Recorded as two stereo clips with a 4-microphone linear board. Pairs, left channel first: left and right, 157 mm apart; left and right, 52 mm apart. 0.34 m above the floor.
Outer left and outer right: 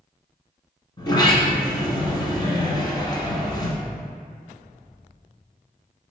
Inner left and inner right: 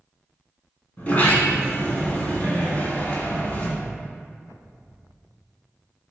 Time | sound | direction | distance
1.0 | a sliding door | 30° left (ahead or behind) | 1.5 m